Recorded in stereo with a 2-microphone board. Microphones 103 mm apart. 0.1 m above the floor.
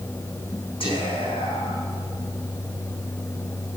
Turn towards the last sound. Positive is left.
turn(degrees=60)  # may be behind; listen again after turning